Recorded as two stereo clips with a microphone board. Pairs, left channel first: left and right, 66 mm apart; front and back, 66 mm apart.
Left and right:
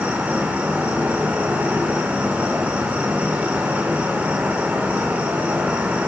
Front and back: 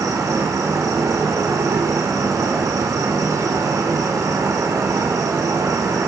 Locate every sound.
0.0 s an insect: 155° right, 2.5 m